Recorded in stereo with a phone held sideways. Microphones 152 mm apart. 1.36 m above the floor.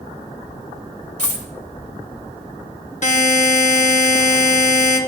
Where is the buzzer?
50° left (ahead or behind), 1.1 m.